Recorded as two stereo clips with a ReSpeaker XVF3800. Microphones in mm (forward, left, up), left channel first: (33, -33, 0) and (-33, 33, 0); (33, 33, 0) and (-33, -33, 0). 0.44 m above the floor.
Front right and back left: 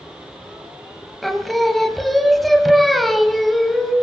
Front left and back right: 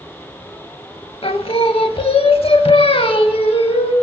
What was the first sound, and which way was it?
Singing, 45° left.